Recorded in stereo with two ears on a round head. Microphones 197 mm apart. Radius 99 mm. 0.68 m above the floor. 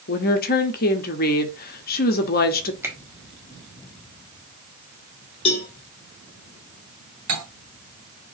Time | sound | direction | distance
0.1 | a woman speaking | 45° left (ahead or behind) | 0.7 m
2.8 | a finger snap | 10° right (ahead or behind) | 1.3 m
5.5 | a cowbell | 25° left (ahead or behind) | 0.9 m
7.3 | cutlery clinking | 85° right | 1.6 m